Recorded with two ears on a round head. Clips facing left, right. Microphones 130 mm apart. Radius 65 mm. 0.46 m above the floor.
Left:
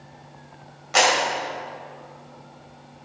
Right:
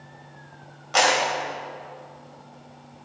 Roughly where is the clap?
Centre.